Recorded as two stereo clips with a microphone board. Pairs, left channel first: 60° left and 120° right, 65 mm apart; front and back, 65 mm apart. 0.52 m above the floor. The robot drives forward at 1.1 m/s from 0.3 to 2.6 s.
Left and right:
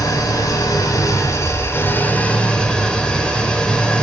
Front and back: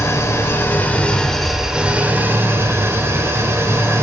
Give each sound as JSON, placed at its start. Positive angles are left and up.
{"t": 0.0, "sound": "an engine running", "azimuth_deg": 45, "distance_m": 1.9}